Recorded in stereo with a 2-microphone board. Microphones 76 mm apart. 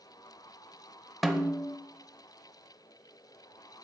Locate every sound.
1.2 s a snare drum: 5° right (ahead or behind), 0.6 m